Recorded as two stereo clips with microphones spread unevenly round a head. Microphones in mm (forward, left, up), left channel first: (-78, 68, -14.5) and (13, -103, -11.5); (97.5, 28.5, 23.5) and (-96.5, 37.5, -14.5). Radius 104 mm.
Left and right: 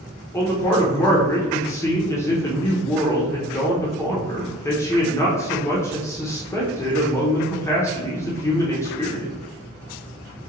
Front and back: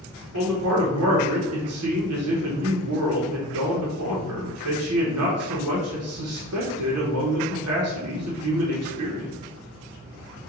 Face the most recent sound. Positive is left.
turn(degrees=-165)